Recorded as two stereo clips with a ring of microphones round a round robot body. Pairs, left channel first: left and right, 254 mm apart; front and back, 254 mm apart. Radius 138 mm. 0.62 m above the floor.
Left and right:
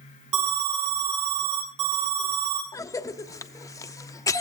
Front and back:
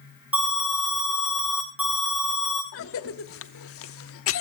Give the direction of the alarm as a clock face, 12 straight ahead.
3 o'clock.